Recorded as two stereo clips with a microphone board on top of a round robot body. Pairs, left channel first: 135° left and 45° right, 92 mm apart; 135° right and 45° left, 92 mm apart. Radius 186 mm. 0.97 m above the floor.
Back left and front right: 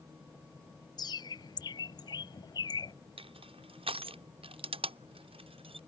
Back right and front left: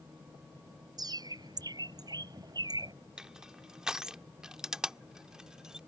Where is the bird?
90° left.